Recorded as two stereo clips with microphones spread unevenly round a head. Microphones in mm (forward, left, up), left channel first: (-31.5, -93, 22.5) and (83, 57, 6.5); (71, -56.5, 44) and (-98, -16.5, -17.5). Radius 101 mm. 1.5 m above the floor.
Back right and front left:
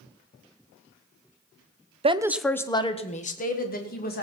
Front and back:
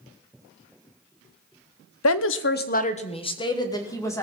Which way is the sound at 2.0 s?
5° right.